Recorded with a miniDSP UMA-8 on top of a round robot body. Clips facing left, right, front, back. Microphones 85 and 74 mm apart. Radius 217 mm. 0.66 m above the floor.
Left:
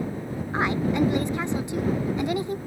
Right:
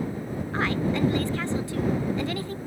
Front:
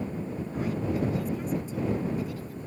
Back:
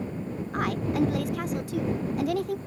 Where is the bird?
No bird in this recording.